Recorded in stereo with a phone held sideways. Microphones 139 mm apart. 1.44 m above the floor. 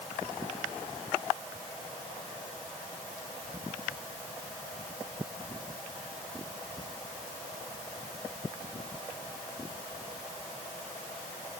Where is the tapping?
I don't hear tapping.